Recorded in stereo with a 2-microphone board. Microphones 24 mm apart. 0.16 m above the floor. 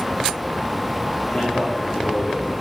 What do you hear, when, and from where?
1.3 s a man speaking: 40° left (ahead or behind), 6 m